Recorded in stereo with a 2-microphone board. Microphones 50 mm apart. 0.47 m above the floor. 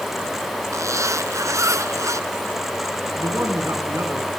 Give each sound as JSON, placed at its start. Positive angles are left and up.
{"t": 0.7, "sound": "a zipper", "side_deg": -85, "distance_m": 1.5}
{"t": 3.2, "sound": "a man speaking", "side_deg": -65, "distance_m": 4.5}